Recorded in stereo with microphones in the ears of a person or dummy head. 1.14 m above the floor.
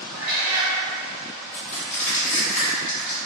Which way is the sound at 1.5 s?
45° left (ahead or behind).